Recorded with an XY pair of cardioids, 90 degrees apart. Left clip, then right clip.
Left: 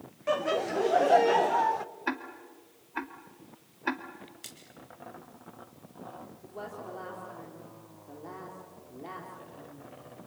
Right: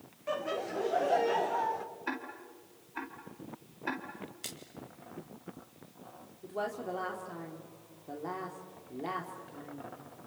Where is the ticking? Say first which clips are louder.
Left 5 dB; 45° left, 2.5 m.